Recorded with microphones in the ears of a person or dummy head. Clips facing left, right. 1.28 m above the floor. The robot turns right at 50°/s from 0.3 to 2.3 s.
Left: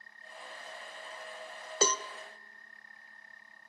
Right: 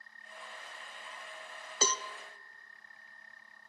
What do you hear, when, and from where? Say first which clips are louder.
1.8 s a cowbell: left 5 dB; 50° left (ahead or behind), 0.6 m; by 2.0 s 40° left (ahead or behind), 0.6 m